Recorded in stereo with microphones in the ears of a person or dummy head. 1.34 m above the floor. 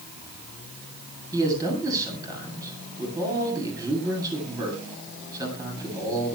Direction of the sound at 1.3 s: 15° right (ahead or behind).